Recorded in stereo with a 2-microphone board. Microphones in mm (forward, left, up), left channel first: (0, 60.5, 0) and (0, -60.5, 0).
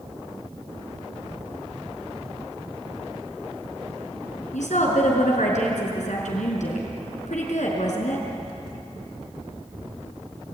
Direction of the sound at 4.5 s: 80° left.